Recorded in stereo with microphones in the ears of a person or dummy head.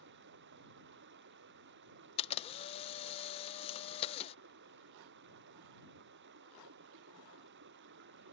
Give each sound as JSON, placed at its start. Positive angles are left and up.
{"t": 0.0, "sound": "running water", "side_deg": -55}
{"t": 2.2, "sound": "a camera shutter", "side_deg": 30}